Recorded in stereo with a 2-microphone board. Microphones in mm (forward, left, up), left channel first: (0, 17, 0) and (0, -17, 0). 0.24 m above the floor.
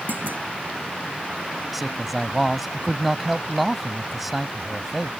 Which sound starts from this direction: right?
A clunk, at 0.1 s.